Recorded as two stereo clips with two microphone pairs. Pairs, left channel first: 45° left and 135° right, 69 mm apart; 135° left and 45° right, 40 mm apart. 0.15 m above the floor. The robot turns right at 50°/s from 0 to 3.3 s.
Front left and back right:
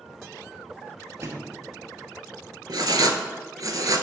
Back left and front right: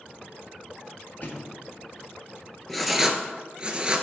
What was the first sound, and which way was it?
A thud, 175° left.